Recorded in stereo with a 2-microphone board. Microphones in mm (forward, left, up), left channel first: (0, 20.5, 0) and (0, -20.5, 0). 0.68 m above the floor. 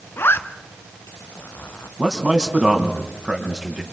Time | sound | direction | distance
0.2 | a zipper | 70° left (ahead or behind) | 1.5 m
2.0 | a man speaking | 20° right (ahead or behind) | 4.5 m